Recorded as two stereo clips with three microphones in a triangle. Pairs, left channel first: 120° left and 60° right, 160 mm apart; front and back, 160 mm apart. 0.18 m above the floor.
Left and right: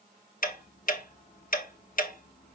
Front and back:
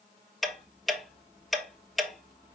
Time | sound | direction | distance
0.4 | ticking | 90° left | 0.9 m